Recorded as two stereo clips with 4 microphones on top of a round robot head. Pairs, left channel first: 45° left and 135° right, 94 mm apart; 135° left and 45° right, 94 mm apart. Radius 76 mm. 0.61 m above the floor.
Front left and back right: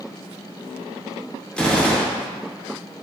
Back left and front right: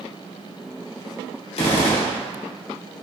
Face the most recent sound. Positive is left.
turn(degrees=125)